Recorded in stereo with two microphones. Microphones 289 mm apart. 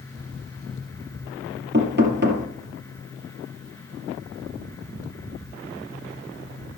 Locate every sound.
1.7 s knocking: 40° right (ahead or behind), 2 m